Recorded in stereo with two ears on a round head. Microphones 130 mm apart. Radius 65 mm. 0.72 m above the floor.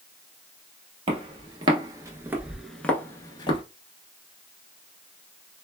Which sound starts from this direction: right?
Footsteps, at 1.1 s.